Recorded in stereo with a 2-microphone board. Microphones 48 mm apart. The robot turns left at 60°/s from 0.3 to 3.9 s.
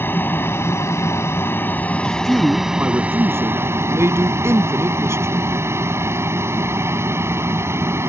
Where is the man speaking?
5° left; by 5.4 s 105° right.